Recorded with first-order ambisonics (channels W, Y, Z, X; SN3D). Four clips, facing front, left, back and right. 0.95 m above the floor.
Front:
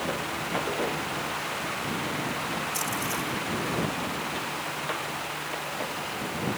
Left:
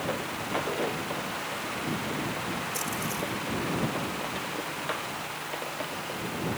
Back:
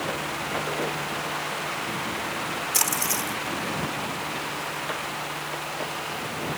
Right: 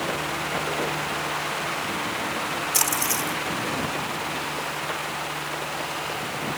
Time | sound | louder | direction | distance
2.7 | a splash | right 7 dB, back 3 dB | 130° right | ?